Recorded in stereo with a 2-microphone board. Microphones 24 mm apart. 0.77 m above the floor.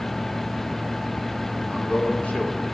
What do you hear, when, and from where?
1.7 s a man speaking: 60° left (ahead or behind), 2.5 m